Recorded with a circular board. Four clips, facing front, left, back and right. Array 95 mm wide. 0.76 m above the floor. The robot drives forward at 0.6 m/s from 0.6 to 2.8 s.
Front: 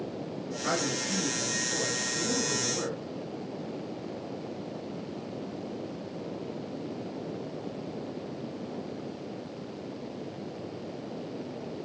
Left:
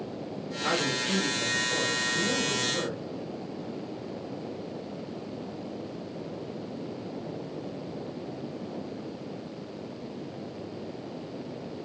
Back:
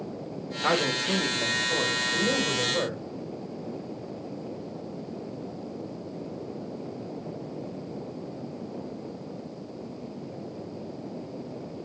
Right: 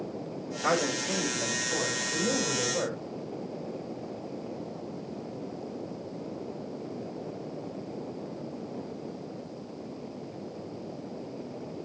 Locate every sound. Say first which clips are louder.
0.6 s a man speaking: right 2 dB, back 6 dB; 165° right, 3 m; by 3.0 s 170° right, 4 m